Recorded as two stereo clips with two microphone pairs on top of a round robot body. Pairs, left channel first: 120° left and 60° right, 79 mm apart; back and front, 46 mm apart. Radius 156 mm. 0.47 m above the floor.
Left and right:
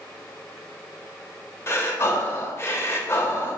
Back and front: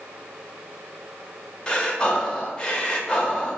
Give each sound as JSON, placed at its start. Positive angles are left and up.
{"t": 1.7, "sound": "breathing", "azimuth_deg": 115, "distance_m": 0.8}